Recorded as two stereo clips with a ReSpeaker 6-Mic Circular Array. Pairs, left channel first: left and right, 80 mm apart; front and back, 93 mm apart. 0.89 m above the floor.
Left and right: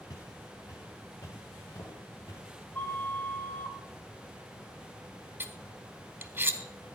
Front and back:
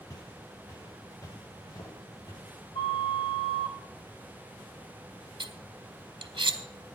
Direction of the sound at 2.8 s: 20° left.